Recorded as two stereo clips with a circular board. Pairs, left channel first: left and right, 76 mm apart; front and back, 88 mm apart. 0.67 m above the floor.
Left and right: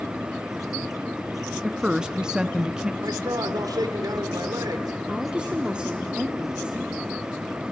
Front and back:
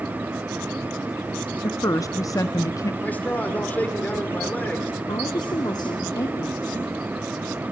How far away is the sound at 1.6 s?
About 0.7 m.